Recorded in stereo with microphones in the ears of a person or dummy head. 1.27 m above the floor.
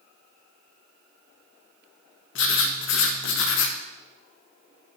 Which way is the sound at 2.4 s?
60° left (ahead or behind).